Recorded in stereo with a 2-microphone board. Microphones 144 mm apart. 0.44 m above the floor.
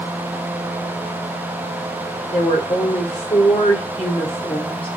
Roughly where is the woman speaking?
Left.